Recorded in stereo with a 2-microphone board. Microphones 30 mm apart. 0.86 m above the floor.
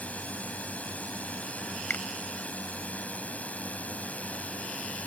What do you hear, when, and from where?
0.0 s a drone: 55° left (ahead or behind)
1.9 s a finger snap: 80° left